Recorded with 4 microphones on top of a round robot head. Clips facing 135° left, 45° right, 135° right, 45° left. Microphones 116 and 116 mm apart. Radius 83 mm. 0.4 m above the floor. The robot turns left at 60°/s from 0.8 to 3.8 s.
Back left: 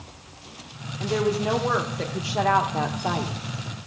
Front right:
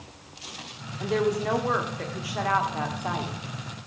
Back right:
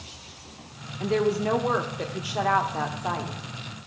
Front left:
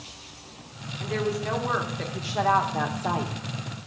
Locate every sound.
1.0 s a woman speaking: 125° right, 1.0 m; by 3.3 s 95° left, 1.0 m